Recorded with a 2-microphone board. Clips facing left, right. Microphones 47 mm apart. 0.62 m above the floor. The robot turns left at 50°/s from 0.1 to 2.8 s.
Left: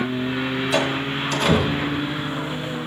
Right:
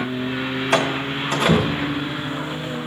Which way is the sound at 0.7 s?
55° right (ahead or behind).